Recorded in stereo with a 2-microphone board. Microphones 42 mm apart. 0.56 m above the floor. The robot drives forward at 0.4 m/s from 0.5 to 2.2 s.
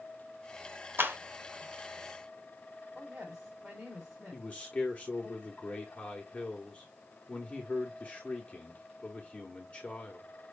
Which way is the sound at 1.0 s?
60° right (ahead or behind).